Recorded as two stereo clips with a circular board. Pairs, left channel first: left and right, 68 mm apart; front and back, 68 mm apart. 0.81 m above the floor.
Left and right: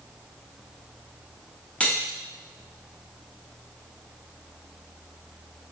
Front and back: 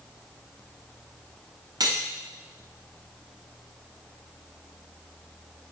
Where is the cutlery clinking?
160° left, 0.7 m.